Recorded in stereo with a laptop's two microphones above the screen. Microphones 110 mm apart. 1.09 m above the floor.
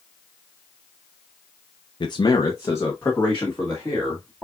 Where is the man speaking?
45° left (ahead or behind), 0.6 m; by 4.4 s 10° left (ahead or behind), 2.5 m.